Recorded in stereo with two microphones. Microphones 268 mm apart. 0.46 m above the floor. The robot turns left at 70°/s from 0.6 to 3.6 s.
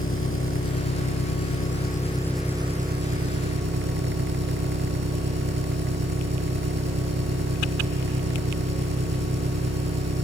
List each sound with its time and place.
0.0 s an engine running: 125° left, 3.5 m; by 10.2 s 85° right, 3.5 m